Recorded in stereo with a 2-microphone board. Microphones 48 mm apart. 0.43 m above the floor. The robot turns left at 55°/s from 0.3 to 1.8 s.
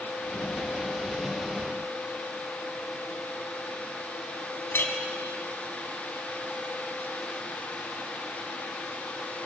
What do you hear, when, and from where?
4.7 s a clink: 45° left (ahead or behind), 3 m